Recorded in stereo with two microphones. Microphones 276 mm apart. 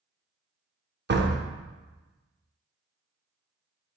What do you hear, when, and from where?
1.1 s a door slam: 40° right (ahead or behind), 0.5 m